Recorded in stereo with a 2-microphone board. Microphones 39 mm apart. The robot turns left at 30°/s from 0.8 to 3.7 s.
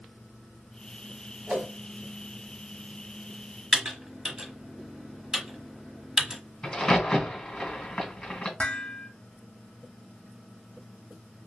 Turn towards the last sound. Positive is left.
turn(degrees=25)  # may be behind; listen again after turning